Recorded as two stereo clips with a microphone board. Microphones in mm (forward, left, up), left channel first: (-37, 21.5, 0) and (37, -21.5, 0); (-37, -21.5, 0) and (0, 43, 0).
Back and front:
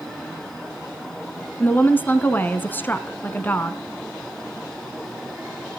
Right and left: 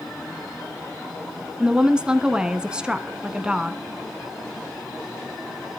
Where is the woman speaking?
120° left, 1.2 m.